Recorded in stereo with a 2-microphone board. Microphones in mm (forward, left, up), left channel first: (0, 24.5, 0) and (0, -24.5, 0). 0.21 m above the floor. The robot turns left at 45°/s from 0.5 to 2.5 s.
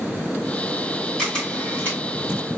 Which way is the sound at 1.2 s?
10° left (ahead or behind).